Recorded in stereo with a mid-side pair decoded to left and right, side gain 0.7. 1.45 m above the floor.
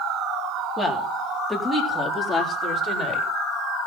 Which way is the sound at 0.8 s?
Straight ahead.